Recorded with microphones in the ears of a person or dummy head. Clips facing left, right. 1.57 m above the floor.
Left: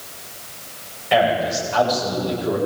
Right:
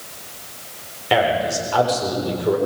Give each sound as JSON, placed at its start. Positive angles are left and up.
{"t": 1.1, "sound": "a man speaking", "side_deg": -75, "distance_m": 7.0}